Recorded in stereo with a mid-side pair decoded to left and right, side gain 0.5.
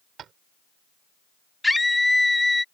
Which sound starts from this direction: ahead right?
Tapping, at 0.2 s.